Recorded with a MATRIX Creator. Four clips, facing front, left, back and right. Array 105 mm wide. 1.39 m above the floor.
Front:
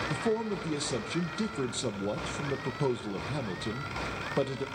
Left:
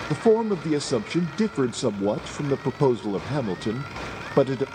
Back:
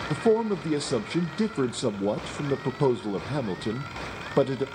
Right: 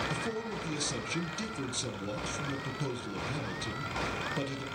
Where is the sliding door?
No sliding door in this recording.